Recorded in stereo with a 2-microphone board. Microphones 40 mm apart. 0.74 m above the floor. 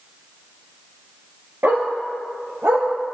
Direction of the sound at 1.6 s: 65° right (ahead or behind).